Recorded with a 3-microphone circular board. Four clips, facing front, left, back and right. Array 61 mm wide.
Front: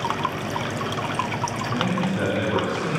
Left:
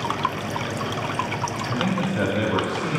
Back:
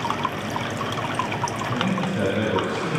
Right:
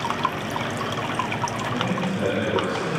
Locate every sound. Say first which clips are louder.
1.7 s a man speaking: left 1 dB, front 2 dB; 90° left, 1.4 m